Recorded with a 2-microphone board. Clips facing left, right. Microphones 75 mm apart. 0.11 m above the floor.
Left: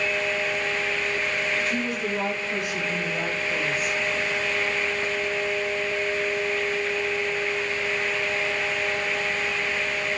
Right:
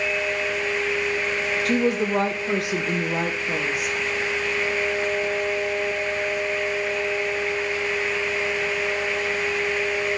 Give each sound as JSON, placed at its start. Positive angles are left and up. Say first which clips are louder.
{"t": 1.6, "sound": "a woman speaking", "louder": "right 6 dB", "side_deg": -70, "distance_m": 3.0}